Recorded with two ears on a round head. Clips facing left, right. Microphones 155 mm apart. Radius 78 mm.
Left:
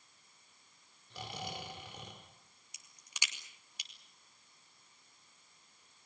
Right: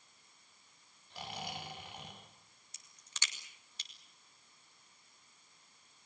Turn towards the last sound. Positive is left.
turn(degrees=10)  # may be behind; listen again after turning